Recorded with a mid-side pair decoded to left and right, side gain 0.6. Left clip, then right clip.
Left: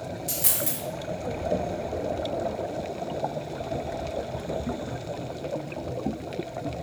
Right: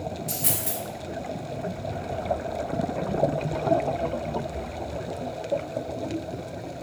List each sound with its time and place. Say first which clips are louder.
0.3 s a dropped coin: left 3 dB; 30° left, 1.3 m